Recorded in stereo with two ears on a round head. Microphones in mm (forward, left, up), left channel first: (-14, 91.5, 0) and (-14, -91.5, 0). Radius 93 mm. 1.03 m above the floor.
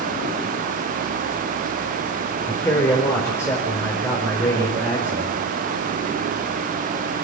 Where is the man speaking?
10° left (ahead or behind), 4 m.